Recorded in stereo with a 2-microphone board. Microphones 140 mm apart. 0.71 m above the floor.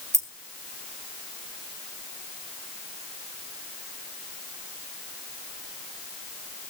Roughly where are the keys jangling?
Right.